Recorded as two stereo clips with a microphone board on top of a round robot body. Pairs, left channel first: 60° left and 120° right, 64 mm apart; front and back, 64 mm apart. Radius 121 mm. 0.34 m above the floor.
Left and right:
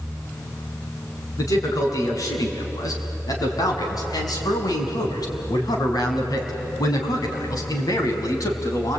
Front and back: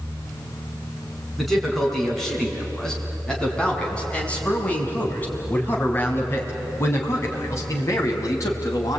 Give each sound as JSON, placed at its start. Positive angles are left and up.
{"t": 1.4, "sound": "a man speaking", "azimuth_deg": 90, "distance_m": 5.0}